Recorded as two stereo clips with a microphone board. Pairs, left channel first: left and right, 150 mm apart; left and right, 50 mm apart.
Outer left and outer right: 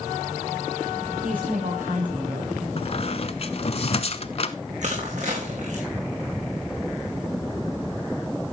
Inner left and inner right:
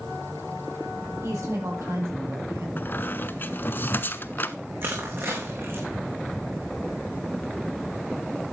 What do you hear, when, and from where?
1.2 s a woman speaking: 70° right (ahead or behind), 6.5 m
2.8 s a squeak: 45° left (ahead or behind), 0.7 m
4.8 s crushing: 55° right (ahead or behind), 4.5 m